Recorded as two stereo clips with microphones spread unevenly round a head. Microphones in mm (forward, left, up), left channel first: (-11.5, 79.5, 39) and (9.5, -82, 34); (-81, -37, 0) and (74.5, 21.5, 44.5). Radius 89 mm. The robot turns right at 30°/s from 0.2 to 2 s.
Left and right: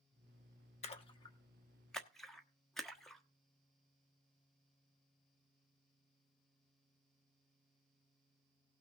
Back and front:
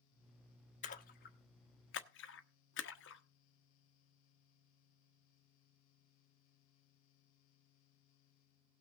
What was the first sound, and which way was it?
A splash, 150° left.